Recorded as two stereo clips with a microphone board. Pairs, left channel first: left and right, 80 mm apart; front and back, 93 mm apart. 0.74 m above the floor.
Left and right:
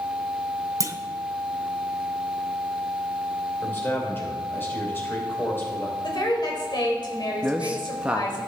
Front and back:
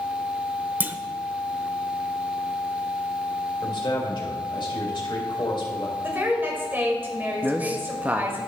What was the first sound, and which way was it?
A clunk, 115° right.